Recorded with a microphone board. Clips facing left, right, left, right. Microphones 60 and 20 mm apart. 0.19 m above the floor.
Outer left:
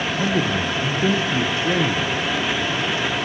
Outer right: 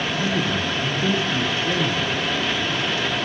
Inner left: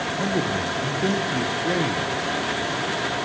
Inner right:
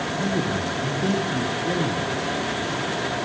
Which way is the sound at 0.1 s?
35° left (ahead or behind).